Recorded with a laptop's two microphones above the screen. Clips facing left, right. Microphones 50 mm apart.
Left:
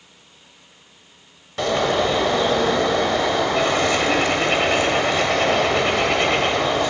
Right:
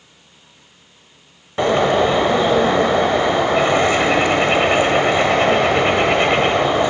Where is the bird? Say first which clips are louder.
Right 5 dB; 20° right (ahead or behind), 1.0 m.